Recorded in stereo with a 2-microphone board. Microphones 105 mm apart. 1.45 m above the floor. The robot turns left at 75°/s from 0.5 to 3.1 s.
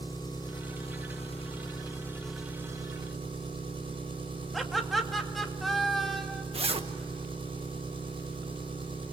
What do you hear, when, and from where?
0.0 s an engine running: 135° left, 4 m; by 9.1 s 60° right, 4 m
4.5 s laughter: centre (ahead or behind), 2.5 m
6.5 s a zipper: 70° right (ahead or behind), 1.3 m